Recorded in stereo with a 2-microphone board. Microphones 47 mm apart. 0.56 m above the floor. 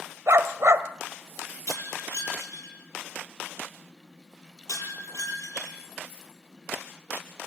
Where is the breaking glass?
85° left, 9.5 m.